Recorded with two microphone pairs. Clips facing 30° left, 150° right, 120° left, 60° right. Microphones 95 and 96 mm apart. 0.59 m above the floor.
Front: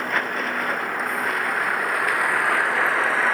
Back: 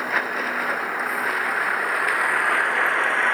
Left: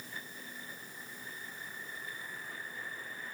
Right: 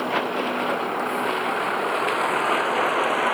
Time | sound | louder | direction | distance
0.0 | a vehicle | even, right 25 dB | 60° right | ?